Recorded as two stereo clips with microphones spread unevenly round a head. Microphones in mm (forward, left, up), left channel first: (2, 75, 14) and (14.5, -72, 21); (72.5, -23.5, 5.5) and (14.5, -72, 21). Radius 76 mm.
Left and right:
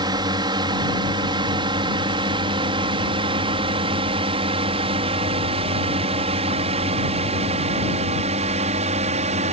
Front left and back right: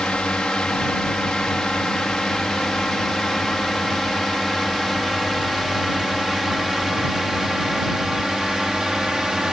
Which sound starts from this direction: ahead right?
A drone, at 0.0 s.